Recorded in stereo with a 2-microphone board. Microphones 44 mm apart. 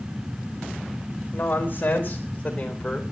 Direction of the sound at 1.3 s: 50° left (ahead or behind).